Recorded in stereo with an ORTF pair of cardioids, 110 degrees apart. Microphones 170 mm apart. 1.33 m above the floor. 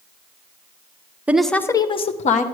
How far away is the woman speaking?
About 0.7 m.